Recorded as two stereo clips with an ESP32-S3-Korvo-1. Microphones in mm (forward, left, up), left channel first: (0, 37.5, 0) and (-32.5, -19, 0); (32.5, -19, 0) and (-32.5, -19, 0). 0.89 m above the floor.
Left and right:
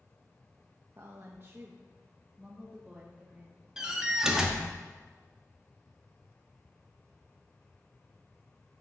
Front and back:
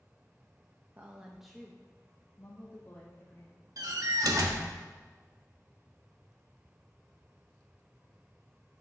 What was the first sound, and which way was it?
A woman speaking, 135° right.